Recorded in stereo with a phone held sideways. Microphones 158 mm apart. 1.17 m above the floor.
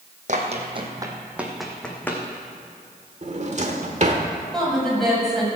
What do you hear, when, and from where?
0.3 s running footsteps: 50° right (ahead or behind), 2.0 m; by 2.2 s 15° left (ahead or behind), 3 m
3.2 s a drawer: 45° right (ahead or behind), 1.3 m
4.5 s a woman speaking: centre (ahead or behind), 6 m